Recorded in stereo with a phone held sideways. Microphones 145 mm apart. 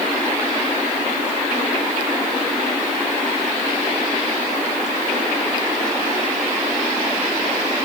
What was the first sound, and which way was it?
Only background noise.